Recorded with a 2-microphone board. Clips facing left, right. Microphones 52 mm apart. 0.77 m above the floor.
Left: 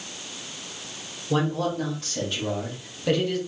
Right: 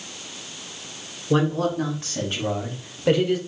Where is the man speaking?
35° right (ahead or behind), 2 m; by 3.4 s 15° right (ahead or behind), 1.1 m.